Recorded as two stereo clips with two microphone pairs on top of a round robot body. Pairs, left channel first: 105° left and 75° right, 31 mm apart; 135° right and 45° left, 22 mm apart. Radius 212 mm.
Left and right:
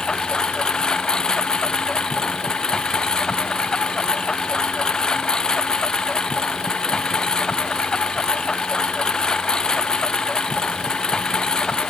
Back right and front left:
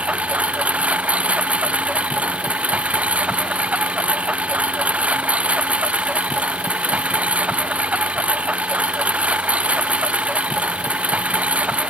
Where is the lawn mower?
40° left.